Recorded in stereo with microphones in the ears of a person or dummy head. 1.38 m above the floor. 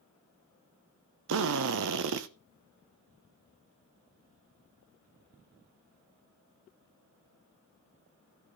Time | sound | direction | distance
1.3 | a drill | 65° right (ahead or behind) | 0.8 m